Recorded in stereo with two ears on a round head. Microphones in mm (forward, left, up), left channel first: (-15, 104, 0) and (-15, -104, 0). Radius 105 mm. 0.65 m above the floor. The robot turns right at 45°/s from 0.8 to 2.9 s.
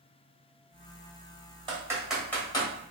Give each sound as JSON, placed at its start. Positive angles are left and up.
{"t": 1.7, "sound": "typing on a keyboard", "side_deg": -20, "distance_m": 1.0}